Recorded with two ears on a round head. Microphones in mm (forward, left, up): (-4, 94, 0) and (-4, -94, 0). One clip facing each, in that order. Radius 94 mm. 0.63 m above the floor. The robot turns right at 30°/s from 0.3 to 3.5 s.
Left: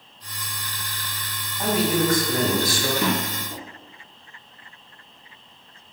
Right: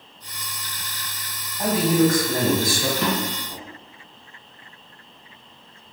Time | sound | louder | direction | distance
1.6 | a man speaking | right 3 dB | 155° right | 1.5 m
3.0 | a drawer | even | 10° left (ahead or behind) | 1.5 m